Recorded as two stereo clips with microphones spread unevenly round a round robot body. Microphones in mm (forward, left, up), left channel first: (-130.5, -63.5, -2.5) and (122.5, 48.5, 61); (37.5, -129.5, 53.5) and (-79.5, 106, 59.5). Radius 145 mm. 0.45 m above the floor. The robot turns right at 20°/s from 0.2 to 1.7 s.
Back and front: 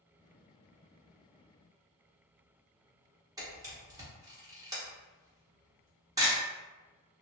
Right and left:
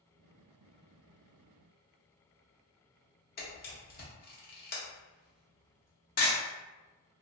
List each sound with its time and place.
3.4 s a camera shutter: 65° right, 1.2 m